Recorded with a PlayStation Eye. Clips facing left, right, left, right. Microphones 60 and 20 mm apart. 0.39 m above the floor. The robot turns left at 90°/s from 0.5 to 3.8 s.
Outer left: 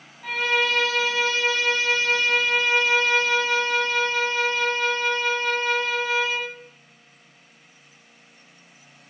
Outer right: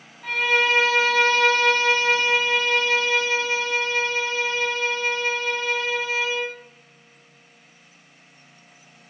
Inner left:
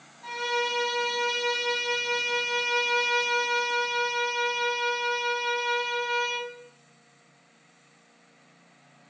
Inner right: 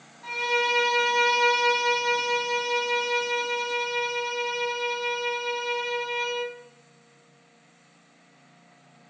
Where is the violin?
Straight ahead, 0.6 m; by 6.5 s 65° left, 0.6 m.